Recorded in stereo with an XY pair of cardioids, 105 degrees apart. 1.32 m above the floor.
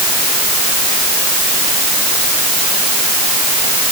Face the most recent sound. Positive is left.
No sound to turn to.